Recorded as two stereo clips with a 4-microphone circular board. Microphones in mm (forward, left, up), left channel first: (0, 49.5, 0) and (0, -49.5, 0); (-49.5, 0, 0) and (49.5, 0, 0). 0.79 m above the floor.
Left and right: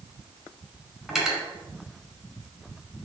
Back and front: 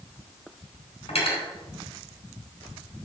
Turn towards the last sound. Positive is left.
turn(degrees=180)